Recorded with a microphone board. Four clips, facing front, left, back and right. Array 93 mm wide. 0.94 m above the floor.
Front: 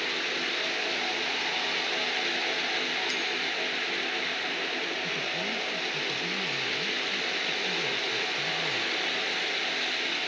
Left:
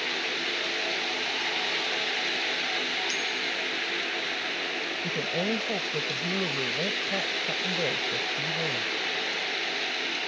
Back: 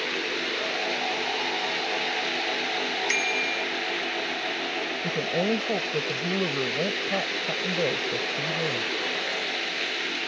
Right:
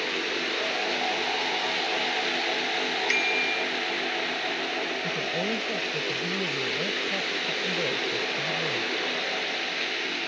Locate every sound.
3.1 s a bicycle bell: 130° right
5.0 s a woman speaking: 175° left